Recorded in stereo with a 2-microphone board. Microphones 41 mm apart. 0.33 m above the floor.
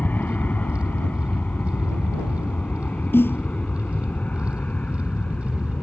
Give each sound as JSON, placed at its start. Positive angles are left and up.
{"t": 0.0, "sound": "an aircraft", "side_deg": 50}
{"t": 3.1, "sound": "a snare drum", "side_deg": 75}